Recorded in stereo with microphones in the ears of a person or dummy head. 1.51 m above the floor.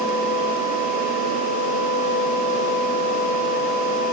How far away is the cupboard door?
I don't hear a cupboard door.